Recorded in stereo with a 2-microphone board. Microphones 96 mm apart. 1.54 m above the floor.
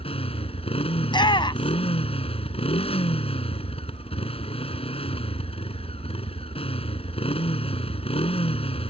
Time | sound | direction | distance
0.0 | a motorcycle | 80° left | ?
1.0 | a shout | 50° left (ahead or behind) | ?